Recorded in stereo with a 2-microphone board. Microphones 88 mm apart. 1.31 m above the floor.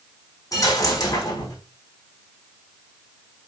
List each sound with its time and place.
0.5 s a dropped coin: 45° left (ahead or behind), 5 m